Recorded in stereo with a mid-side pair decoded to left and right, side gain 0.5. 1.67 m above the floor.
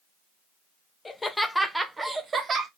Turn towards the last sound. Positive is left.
turn(degrees=-40)